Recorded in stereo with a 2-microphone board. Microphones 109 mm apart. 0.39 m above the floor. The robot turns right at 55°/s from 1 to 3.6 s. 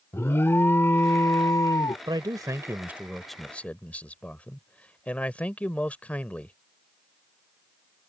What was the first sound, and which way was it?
An alarm, 40° left.